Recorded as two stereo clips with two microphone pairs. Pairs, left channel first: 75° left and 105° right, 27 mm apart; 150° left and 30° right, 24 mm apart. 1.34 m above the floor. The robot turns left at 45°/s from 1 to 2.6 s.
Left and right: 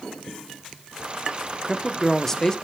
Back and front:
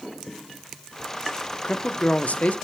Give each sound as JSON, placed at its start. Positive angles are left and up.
{"t": 1.6, "sound": "a woman speaking", "azimuth_deg": 180, "distance_m": 1.0}